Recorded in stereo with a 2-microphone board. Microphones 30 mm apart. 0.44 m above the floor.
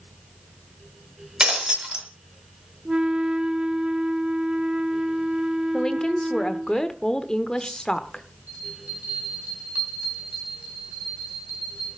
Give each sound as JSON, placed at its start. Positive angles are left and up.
{"t": 1.4, "sound": "breaking glass", "side_deg": -30, "distance_m": 1.8}
{"t": 2.9, "sound": "a flute", "side_deg": -25, "distance_m": 0.7}
{"t": 5.7, "sound": "a woman speaking", "side_deg": 25, "distance_m": 0.9}
{"t": 8.5, "sound": "a bell", "side_deg": -55, "distance_m": 3.5}